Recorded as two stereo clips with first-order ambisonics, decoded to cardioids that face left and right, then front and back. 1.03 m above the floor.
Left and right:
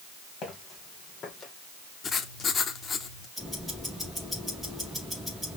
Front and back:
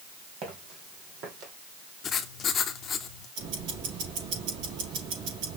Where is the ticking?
Straight behind, 4 m.